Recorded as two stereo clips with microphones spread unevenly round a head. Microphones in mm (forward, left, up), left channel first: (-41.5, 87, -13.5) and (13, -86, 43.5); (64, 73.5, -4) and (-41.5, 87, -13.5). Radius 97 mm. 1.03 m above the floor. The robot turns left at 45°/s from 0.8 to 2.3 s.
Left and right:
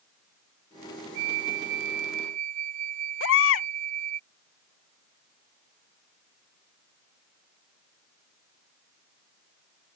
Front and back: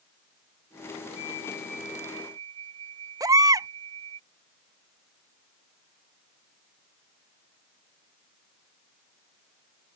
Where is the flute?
70° right; by 4.2 s 120° right.